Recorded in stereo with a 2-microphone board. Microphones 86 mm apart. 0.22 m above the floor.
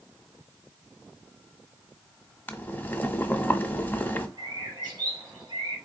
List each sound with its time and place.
2.5 s boiling: 20° left (ahead or behind), 0.6 m
4.4 s a bird: 55° right (ahead or behind), 2 m